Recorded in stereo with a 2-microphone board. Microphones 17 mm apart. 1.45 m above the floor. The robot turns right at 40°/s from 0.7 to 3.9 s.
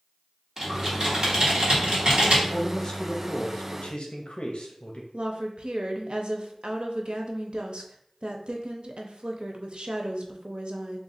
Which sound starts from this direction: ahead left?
A man speaking, at 2.5 s.